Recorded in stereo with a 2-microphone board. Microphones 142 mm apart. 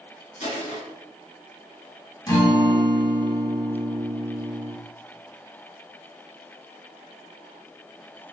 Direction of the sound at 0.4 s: 55° left (ahead or behind).